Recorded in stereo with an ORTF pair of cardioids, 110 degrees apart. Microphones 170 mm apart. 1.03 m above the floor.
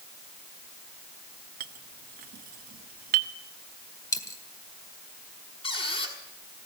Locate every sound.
1.6 s a clink: 55° right, 0.8 m
4.1 s a dropped coin: 20° left, 1.7 m
5.6 s a squeak: 30° left, 5 m